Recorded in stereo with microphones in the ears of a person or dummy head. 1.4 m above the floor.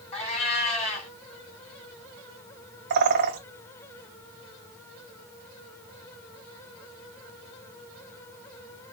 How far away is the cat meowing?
About 1.7 m.